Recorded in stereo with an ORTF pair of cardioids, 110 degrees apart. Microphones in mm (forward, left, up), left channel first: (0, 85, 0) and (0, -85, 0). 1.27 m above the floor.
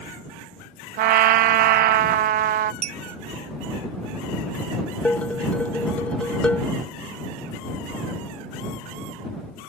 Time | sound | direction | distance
1.0 | a trumpet | 60° right | ?
2.8 | a clink | 40° right | ?
5.0 | dishes clattering | 10° left | ?